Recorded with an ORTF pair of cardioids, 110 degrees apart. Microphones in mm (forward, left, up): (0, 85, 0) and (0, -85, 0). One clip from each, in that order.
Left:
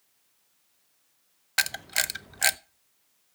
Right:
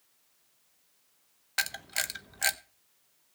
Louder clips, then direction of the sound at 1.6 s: Left 5 dB; 25° left.